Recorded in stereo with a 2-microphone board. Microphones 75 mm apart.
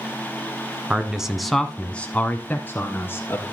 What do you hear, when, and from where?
0.9 s a man speaking: 15° right (ahead or behind), 1.0 m; by 3.4 s 30° left (ahead or behind), 1.9 m